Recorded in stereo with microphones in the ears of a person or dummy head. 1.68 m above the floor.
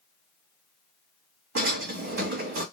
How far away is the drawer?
About 1.6 m.